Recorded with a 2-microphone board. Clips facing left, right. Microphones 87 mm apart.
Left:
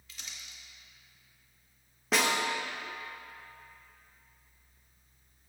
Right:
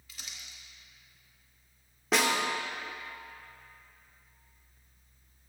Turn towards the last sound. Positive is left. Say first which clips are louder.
# right 1 dB
turn(degrees=0)  # may be behind; listen again after turning